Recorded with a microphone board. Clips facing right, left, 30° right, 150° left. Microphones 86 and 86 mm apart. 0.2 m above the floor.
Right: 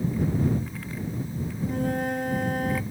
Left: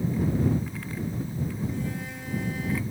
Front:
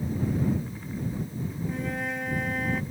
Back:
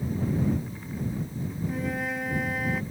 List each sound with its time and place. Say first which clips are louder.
1.6 s a flute: right 6 dB, back 2 dB; 120° right